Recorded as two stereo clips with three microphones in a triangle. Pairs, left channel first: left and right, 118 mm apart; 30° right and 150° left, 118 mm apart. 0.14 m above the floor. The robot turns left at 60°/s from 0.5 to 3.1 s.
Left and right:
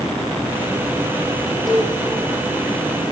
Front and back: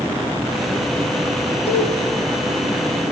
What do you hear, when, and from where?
1.7 s a cowbell: straight ahead, 6.5 m; by 1.9 s 15° right, 6.5 m